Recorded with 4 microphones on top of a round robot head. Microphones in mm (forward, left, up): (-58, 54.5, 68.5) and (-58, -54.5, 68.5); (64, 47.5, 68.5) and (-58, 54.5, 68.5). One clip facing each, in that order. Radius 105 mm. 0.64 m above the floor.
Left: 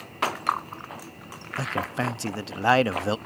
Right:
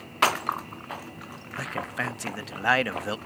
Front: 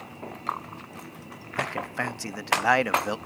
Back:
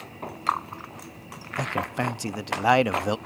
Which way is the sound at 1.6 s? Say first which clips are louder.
Left 4 dB, back 3 dB; 120° left.